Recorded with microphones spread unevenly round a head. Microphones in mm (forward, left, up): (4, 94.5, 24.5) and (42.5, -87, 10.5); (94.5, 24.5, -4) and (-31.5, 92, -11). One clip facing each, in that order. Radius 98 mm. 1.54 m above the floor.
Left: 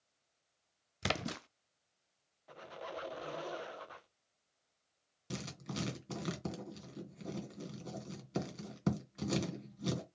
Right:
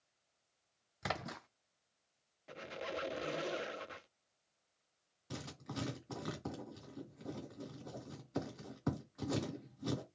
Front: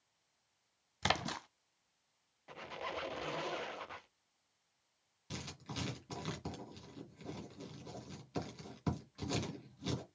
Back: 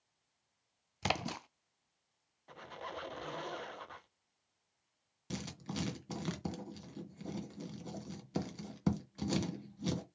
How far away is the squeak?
About 0.6 m.